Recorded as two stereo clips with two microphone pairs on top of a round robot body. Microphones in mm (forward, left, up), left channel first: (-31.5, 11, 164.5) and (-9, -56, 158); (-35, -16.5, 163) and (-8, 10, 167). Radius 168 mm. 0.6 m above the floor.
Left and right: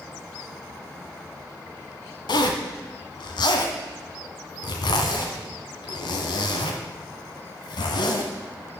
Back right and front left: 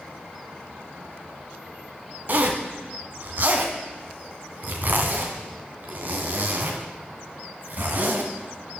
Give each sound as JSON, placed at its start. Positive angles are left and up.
{"t": 2.3, "sound": "a zipper", "azimuth_deg": 90, "distance_m": 1.6}